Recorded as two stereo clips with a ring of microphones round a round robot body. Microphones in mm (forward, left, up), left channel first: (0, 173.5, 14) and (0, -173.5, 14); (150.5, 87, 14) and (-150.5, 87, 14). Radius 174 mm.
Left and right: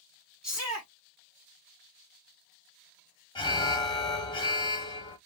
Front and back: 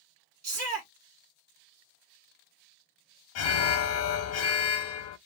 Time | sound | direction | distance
0.4 | a shout | 175° right | 1.2 m
3.4 | an alarm | 15° left | 0.5 m